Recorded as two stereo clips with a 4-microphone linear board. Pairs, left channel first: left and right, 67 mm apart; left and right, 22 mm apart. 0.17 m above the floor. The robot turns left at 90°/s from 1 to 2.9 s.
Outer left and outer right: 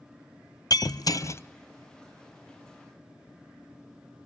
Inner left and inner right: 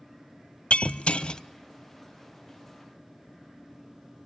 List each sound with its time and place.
0.7 s breaking glass: 75° left, 0.7 m; by 1.4 s 40° left, 0.7 m